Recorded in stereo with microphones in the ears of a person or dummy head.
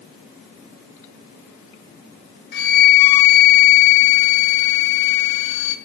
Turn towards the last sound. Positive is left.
turn(degrees=55)  # may be behind; listen again after turning